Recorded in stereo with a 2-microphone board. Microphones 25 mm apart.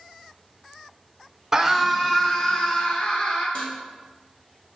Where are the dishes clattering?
45° left (ahead or behind), 2 m.